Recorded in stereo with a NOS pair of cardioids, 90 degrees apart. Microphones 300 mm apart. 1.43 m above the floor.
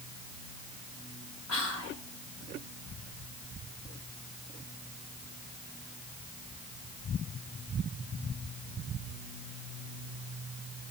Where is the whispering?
55° left, 2 m.